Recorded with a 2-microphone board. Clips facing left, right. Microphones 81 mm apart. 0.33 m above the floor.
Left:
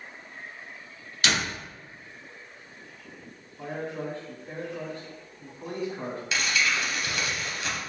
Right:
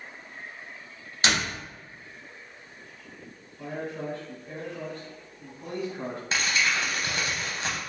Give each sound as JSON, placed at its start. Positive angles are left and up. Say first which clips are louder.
{"t": 1.2, "sound": "a door slam", "louder": "right 1 dB", "side_deg": -30, "distance_m": 1.6}
{"t": 3.6, "sound": "a man speaking", "louder": "left 1 dB", "side_deg": 35, "distance_m": 1.6}
{"t": 6.3, "sound": "crumpling", "louder": "right 1 dB", "side_deg": -40, "distance_m": 1.0}